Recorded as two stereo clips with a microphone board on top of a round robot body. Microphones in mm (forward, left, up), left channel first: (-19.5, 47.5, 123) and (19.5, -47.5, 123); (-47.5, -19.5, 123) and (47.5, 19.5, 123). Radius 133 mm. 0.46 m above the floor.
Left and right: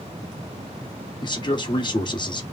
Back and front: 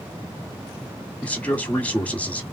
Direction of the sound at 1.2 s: 130° left.